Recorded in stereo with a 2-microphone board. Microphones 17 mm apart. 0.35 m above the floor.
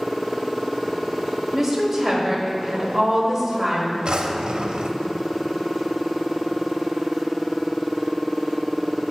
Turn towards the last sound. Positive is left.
turn(degrees=-60)  # may be behind; listen again after turning